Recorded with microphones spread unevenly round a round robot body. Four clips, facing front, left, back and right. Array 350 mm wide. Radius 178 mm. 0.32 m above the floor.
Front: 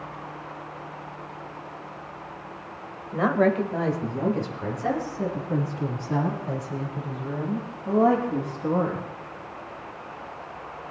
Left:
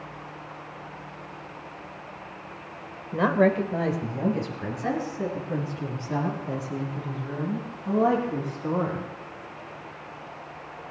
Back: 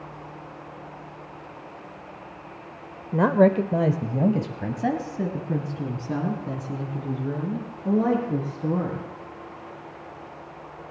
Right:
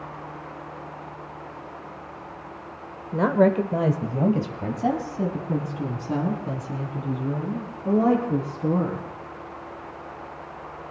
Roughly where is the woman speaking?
Behind right.